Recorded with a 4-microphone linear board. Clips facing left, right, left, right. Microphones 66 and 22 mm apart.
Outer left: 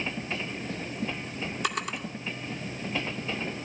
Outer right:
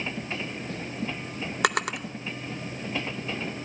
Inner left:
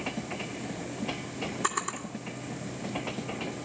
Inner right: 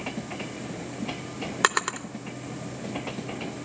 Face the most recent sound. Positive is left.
turn(degrees=-70)  # may be behind; listen again after turning